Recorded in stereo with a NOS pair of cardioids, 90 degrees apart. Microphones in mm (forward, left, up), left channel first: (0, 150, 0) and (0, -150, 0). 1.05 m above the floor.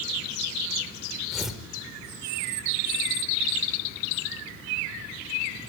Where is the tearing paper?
Straight ahead, 3.5 m.